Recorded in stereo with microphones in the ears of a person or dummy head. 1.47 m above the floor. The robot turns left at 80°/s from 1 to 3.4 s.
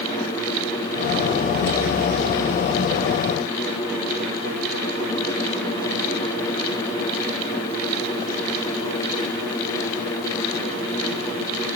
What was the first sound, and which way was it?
Only background noise.